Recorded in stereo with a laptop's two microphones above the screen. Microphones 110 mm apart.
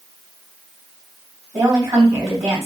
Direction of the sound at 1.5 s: 25° right (ahead or behind).